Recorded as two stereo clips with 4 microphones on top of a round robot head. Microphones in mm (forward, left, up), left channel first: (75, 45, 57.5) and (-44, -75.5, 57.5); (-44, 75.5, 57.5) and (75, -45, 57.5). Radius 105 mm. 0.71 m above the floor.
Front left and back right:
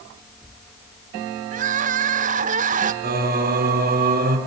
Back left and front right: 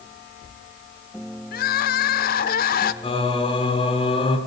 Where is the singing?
165° right, 3 m.